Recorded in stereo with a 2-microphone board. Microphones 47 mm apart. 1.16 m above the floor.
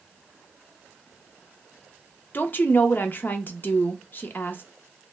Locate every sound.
2.3 s a woman speaking: 40° left (ahead or behind), 0.6 m